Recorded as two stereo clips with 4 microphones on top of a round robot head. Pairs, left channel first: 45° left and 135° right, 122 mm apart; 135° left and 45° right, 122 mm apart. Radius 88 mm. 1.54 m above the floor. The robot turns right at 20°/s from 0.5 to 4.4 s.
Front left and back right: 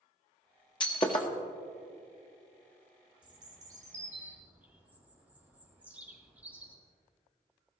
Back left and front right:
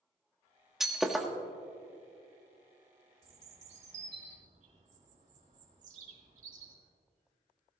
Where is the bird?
85° right, 4 m; by 6.8 s 60° right, 4 m.